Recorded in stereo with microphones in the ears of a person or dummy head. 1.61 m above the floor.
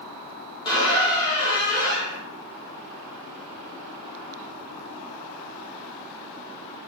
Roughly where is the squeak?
Left.